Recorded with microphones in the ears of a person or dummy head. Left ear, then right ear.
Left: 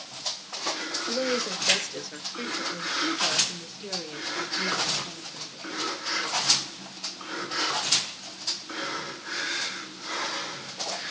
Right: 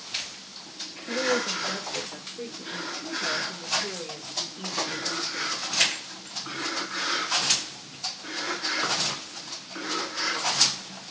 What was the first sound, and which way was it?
A woman speaking, 80° left.